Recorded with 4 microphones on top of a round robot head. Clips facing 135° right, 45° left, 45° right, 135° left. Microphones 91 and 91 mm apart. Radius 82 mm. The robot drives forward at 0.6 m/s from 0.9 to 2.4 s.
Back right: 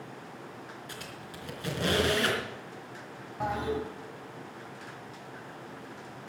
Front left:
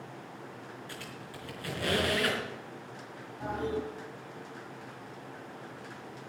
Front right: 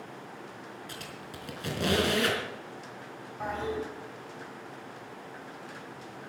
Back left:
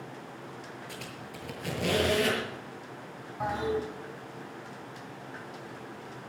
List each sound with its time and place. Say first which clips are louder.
0.9 s a squeak: back right 1 dB, back left 1 dB; 65° right, 4.5 m; by 2.4 s 75° right, 4 m
3.4 s a toilet flushing: back right 2 dB, back left 3 dB; 140° right, 5 m